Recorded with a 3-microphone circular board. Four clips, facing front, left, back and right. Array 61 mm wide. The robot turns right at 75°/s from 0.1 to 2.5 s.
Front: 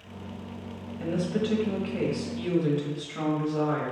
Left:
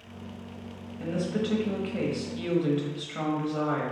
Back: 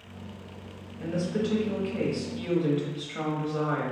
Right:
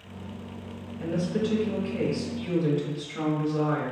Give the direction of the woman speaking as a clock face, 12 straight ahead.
12 o'clock.